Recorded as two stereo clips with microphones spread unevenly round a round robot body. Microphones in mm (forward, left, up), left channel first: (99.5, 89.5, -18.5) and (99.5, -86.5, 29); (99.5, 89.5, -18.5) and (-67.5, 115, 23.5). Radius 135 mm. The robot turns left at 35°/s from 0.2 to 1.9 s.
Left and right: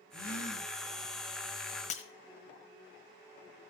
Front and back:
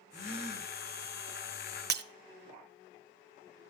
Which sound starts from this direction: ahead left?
A gasp, at 0.1 s.